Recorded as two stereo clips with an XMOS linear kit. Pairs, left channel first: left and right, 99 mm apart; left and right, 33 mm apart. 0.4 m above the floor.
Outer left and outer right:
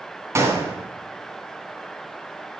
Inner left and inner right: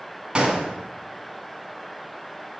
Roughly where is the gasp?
I don't hear a gasp.